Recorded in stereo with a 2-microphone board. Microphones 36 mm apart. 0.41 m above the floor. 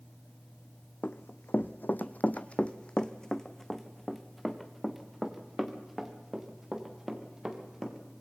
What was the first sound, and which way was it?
Running footsteps, 65° left (ahead or behind).